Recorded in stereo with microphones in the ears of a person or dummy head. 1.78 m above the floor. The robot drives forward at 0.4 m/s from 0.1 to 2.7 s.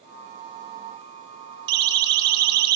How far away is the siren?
About 2.5 m.